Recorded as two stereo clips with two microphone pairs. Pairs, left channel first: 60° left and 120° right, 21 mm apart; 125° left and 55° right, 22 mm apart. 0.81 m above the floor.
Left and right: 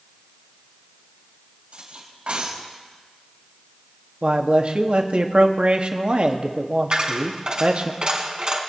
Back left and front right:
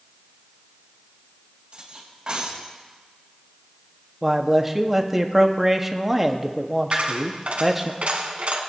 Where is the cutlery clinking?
100° right, 3 m.